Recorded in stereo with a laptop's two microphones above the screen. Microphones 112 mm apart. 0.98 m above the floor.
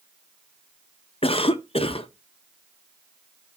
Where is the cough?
60° left (ahead or behind), 0.5 m.